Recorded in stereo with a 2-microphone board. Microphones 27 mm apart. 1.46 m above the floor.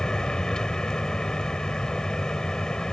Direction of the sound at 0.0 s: 30° left (ahead or behind).